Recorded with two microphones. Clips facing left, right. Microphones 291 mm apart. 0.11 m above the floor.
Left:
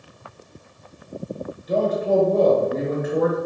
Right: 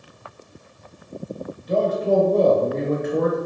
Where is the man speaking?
5° left (ahead or behind), 1.4 m.